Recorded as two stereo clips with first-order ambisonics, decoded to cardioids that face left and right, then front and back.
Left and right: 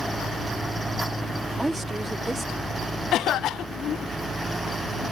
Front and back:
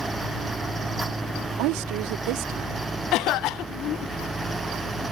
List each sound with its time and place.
1.6 s a woman speaking: 175° right; by 2.9 s 170° right
3.1 s a cough: 40° left